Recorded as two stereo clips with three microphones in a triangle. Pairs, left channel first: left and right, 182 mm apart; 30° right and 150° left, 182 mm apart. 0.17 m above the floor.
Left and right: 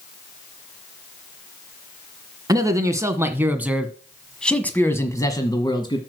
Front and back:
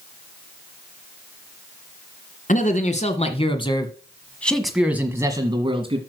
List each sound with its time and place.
2.5 s a man speaking: 30° right, 1.8 m; by 6.0 s 130° left, 1.4 m